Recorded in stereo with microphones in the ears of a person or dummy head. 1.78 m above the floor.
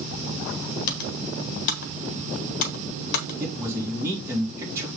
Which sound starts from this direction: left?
Typing on a keyboard, at 0.9 s.